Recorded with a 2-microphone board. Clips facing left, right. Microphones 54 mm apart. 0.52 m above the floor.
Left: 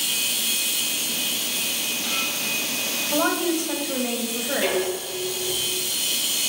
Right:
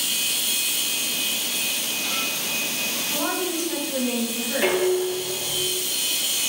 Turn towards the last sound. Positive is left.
turn(degrees=-25)  # may be behind; listen again after turning